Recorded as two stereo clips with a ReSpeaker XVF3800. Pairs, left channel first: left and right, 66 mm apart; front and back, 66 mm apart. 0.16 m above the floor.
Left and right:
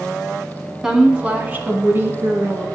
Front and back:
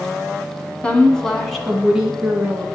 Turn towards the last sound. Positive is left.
turn(degrees=-110)